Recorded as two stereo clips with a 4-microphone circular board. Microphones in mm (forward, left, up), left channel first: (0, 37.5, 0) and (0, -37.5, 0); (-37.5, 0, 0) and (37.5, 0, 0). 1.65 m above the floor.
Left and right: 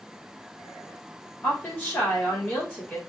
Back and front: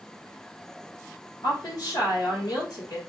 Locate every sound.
1.4 s a woman speaking: 155° left, 2 m